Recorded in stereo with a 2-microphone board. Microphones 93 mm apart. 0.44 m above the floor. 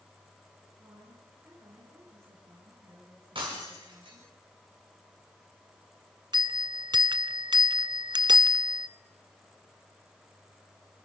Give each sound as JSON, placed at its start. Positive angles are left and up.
{"t": 0.8, "sound": "a woman speaking", "side_deg": -35, "distance_m": 8.5}
{"t": 3.4, "sound": "breaking glass", "side_deg": -65, "distance_m": 8.5}
{"t": 6.3, "sound": "a bell", "side_deg": -50, "distance_m": 0.6}